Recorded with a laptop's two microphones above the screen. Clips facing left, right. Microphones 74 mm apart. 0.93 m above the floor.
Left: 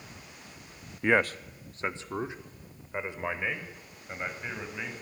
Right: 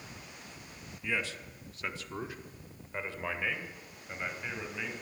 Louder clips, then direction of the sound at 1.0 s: Left 10 dB; 65° left (ahead or behind).